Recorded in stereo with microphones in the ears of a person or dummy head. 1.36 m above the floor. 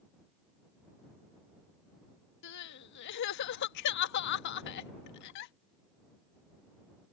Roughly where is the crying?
Left.